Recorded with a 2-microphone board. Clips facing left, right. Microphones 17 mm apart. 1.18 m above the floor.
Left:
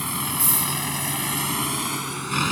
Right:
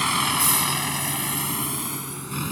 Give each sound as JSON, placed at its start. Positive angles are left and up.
{"t": 0.0, "sound": "a vehicle", "side_deg": -30}